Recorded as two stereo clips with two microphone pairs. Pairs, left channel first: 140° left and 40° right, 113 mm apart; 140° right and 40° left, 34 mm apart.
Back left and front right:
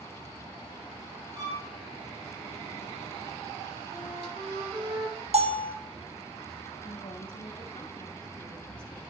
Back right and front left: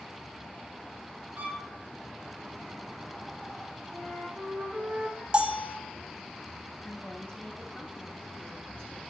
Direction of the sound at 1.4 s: 5° left.